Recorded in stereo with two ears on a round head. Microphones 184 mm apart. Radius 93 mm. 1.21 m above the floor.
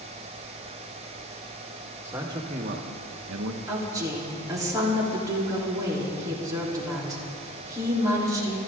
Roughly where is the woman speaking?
Centre.